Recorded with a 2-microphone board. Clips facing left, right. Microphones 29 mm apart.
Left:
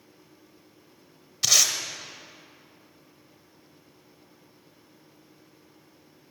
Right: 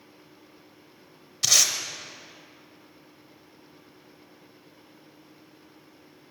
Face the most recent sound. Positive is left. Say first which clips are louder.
# even
turn(degrees=0)  # may be behind; listen again after turning